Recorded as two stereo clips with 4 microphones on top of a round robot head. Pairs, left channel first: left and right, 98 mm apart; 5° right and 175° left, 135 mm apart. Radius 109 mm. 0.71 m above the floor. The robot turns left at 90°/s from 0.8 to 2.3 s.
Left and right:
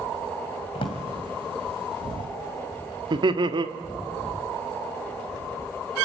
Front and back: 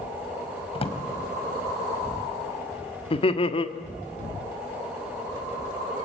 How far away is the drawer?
About 2.5 m.